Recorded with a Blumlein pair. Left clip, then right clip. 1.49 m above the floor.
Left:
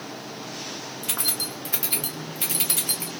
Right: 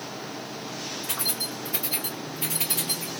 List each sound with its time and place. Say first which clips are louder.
1.0 s keys jangling: left 2 dB; 50° left, 1.2 m